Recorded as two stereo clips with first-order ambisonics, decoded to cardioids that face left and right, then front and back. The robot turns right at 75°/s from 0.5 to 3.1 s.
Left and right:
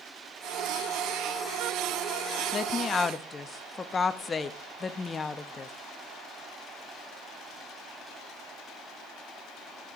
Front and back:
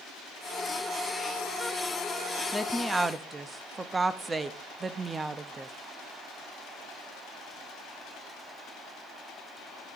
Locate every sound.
2.5 s a woman speaking: 85° left, 0.5 m; by 5.7 s 125° left, 0.5 m